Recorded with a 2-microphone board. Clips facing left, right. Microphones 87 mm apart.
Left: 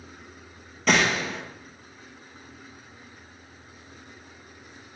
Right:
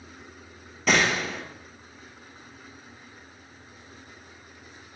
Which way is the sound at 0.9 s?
5° right (ahead or behind).